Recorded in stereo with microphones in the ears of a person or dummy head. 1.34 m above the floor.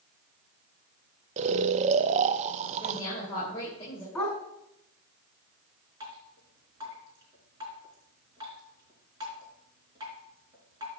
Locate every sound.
1.4 s snoring: 35° right (ahead or behind), 0.6 m
2.8 s a woman speaking: 25° left (ahead or behind), 6 m
4.2 s a dog barking: 5° left (ahead or behind), 3.5 m
6.0 s dripping: 25° right (ahead or behind), 4.5 m